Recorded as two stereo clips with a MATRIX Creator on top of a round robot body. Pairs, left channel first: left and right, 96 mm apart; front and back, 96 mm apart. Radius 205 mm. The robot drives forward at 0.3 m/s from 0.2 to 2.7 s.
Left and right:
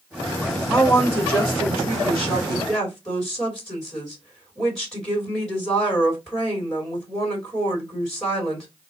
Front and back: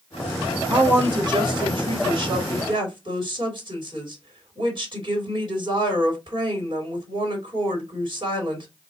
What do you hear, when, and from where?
0.7 s a woman speaking: 165° left, 1.6 m; by 8.7 s 170° left, 2 m